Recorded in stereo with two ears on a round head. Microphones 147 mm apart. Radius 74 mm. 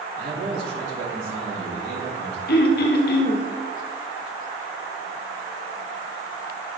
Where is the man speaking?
75° right (ahead or behind), 4 m.